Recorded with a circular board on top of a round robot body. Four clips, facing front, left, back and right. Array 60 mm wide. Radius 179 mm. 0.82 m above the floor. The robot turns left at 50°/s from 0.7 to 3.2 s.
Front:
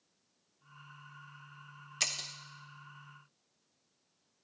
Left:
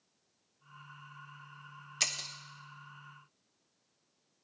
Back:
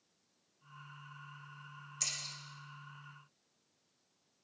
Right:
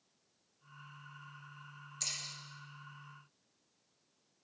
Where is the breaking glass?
50° left, 0.7 m; by 2.3 s 30° left, 0.7 m.